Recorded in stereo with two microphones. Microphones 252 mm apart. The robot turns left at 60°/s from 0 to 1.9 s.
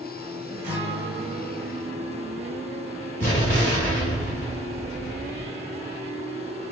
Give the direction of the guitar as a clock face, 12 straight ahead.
10 o'clock.